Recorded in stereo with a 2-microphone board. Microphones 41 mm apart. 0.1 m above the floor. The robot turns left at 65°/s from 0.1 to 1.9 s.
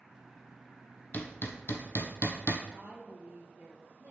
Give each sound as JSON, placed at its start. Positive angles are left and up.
{"t": 1.1, "sound": "hammering", "side_deg": 40, "distance_m": 1.1}
{"t": 2.7, "sound": "a woman speaking", "side_deg": -40, "distance_m": 2.0}